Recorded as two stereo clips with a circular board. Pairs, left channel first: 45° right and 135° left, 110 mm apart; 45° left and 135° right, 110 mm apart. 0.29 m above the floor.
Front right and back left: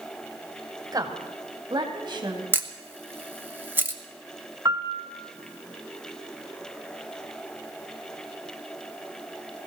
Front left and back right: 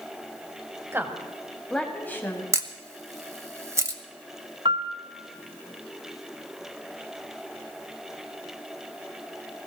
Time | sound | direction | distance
0.9 | a woman speaking | 170° left | 1.8 m
2.5 | a camera shutter | 170° right | 1.1 m
4.7 | a piano | 170° right | 1.0 m